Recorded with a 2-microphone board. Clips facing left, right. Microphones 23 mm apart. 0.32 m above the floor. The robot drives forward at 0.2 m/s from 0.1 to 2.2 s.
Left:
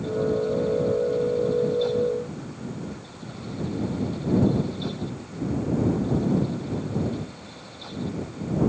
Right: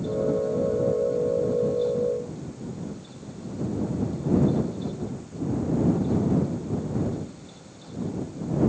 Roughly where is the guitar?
No guitar in this recording.